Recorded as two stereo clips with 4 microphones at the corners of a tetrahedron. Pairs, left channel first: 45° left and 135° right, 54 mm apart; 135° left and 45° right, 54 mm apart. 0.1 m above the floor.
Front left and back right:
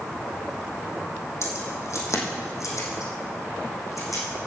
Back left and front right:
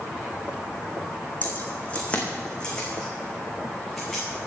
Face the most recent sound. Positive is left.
turn(degrees=50)